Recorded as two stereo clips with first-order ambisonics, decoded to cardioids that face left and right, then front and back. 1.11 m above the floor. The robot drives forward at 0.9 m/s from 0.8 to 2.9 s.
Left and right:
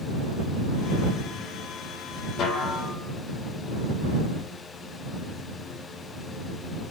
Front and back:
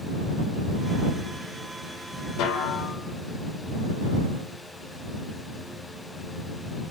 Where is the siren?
I don't hear a siren.